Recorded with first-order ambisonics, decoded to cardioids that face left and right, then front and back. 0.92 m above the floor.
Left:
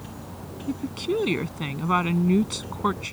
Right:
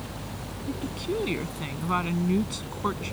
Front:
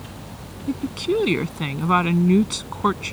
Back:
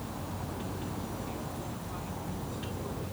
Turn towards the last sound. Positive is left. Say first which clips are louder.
# left 4 dB, front 15 dB
turn(degrees=15)